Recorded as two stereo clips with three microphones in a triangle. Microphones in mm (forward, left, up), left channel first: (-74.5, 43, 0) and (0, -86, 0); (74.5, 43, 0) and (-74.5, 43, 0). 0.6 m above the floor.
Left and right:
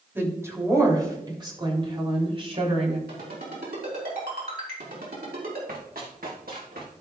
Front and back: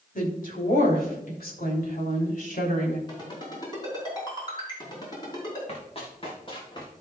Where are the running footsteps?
45° right, 3.5 m; by 6.9 s 60° right, 4 m.